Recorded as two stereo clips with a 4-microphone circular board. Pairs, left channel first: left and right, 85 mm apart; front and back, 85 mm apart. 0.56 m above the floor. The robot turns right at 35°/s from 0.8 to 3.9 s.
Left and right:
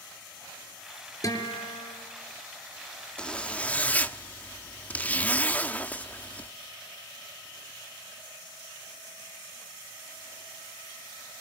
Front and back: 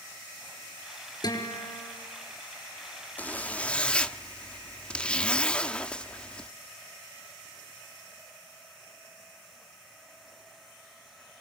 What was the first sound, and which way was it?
A guitar, 40° left.